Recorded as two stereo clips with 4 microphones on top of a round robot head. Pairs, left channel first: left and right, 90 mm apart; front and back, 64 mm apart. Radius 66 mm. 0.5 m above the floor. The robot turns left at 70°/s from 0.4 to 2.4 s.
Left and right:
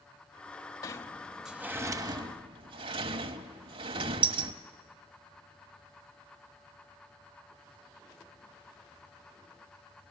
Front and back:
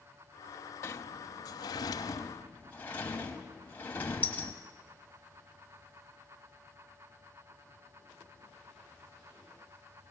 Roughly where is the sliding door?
Ahead left.